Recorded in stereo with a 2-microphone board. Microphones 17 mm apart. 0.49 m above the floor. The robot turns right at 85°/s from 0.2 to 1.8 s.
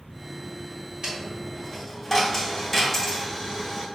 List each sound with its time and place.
1.0 s a dropped coin: 55° right, 1.7 m; by 3.9 s 10° left, 1.7 m